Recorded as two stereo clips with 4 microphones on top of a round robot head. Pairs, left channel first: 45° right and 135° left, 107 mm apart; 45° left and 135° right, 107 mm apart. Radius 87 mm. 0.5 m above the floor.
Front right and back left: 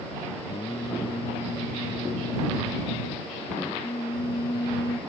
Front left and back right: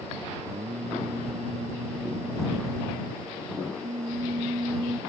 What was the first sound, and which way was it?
Singing, 100° right.